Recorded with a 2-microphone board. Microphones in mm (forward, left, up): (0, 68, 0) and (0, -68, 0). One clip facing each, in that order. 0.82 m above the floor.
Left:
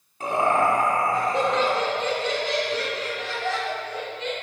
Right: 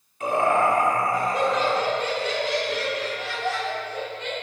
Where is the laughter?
35° left (ahead or behind), 2.5 m; by 4.3 s 20° left (ahead or behind), 6 m.